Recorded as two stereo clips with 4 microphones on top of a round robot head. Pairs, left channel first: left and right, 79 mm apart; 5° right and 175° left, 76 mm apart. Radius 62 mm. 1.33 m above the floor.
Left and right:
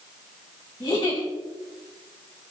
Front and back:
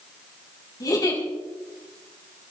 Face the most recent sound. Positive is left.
turn(degrees=35)